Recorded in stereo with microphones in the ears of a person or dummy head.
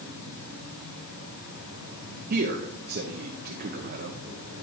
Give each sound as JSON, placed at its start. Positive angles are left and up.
{"t": 0.0, "sound": "an insect", "side_deg": 70, "distance_m": 5.0}
{"t": 2.3, "sound": "a man speaking", "side_deg": -50, "distance_m": 0.9}